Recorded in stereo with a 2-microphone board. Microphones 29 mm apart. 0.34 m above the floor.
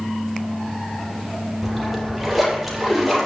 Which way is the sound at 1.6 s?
5° right (ahead or behind).